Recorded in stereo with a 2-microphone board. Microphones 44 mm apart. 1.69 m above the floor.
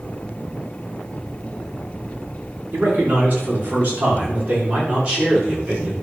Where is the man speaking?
45° right (ahead or behind), 5 m; by 5.9 s 25° right (ahead or behind), 6 m.